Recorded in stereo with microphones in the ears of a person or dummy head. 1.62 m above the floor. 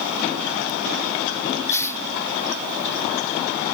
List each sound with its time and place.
1.7 s a hiss: 15° left (ahead or behind)